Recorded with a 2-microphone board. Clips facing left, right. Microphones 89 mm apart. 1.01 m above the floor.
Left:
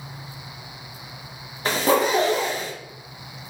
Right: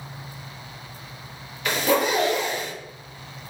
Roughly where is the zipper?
Left.